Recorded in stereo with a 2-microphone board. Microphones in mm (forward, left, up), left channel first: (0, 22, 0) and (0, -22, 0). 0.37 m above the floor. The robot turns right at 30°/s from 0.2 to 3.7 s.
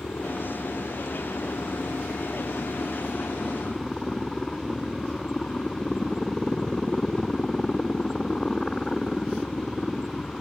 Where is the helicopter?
55° left; by 10.4 s 160° left.